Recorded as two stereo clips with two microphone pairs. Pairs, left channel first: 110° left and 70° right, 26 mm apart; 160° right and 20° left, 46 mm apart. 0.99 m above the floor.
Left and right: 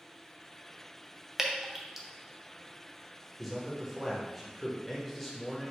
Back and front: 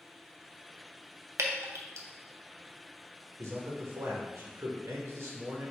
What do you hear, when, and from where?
1.4 s dripping: 5° left, 0.5 m
3.4 s a man speaking: 20° left, 1.1 m